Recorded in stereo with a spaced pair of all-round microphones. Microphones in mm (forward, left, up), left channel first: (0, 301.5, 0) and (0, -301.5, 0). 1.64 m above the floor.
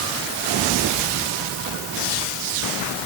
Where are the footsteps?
I don't hear footsteps.